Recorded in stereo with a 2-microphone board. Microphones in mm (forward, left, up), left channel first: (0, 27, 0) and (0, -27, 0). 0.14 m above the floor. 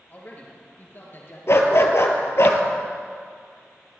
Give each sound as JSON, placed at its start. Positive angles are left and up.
{"t": 0.1, "sound": "a man speaking", "side_deg": 35, "distance_m": 2.5}
{"t": 1.5, "sound": "a dog barking", "side_deg": 60, "distance_m": 0.9}